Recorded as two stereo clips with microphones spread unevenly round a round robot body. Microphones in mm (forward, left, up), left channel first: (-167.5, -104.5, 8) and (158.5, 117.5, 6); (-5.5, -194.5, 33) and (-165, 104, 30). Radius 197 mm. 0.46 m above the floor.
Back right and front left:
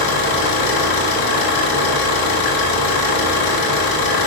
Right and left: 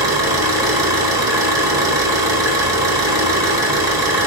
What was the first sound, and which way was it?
An engine running, 160° right.